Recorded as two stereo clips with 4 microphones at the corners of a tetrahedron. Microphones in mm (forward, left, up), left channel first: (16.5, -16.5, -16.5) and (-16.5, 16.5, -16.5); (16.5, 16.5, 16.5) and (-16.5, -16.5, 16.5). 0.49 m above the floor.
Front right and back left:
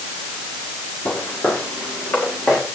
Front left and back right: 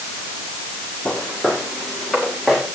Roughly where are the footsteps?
Ahead right.